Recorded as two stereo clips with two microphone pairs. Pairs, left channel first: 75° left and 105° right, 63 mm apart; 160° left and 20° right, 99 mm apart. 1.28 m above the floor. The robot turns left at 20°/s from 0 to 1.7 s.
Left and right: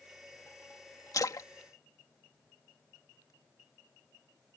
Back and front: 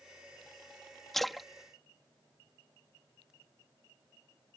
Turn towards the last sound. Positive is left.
turn(degrees=60)